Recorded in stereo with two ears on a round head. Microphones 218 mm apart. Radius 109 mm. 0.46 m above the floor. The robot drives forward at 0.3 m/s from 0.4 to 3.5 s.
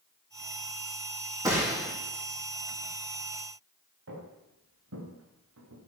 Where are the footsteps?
55° right (ahead or behind), 6.5 m; by 5.9 s 70° right (ahead or behind), 4.5 m.